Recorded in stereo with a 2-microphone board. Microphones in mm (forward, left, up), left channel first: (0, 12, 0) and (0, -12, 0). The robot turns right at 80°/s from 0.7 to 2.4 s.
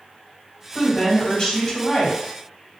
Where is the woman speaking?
90° left, 1.4 m; by 2.2 s 155° right, 1.4 m.